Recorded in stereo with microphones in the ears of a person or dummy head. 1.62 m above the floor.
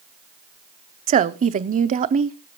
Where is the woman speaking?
35° right (ahead or behind), 0.6 m.